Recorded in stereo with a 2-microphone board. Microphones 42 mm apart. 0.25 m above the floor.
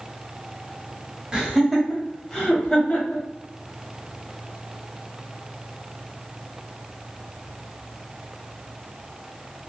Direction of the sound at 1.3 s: 20° right (ahead or behind).